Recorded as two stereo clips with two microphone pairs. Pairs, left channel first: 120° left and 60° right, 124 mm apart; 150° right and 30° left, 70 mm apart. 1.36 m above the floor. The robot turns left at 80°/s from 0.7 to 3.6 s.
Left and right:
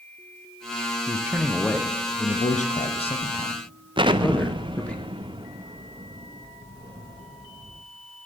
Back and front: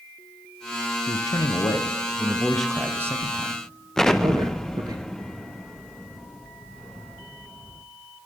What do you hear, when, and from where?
1.1 s a man speaking: 115° right, 0.8 m; by 5.0 s 45° left, 0.8 m
4.0 s an explosion: 70° right, 0.5 m